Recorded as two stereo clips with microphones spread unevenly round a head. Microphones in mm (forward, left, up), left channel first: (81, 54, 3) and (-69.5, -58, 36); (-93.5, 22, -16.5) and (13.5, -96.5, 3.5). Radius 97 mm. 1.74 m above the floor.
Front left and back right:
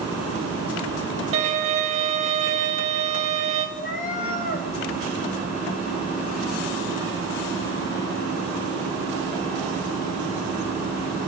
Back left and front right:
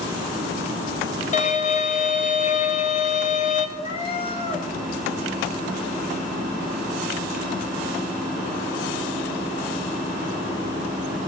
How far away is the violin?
About 1.5 m.